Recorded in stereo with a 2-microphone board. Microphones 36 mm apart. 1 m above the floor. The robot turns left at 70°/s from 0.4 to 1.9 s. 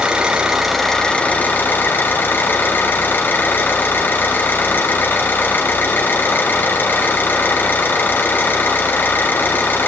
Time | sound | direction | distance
0.0 | an engine running | 160° right | 5 m